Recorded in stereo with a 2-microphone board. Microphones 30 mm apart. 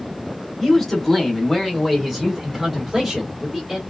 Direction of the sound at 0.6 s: 10° left (ahead or behind).